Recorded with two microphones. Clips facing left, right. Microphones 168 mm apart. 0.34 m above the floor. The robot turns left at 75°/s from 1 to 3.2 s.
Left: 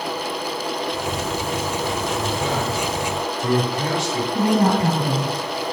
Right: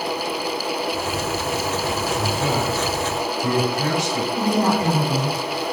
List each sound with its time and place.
2.2 s a man speaking: 30° right (ahead or behind), 1.8 m; by 4.2 s 20° left (ahead or behind), 1.8 m
4.3 s a woman speaking: 65° left (ahead or behind), 3 m